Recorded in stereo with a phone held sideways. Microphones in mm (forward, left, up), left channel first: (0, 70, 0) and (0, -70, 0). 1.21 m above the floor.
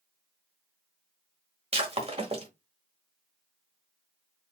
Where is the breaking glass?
50° right (ahead or behind), 1.3 m.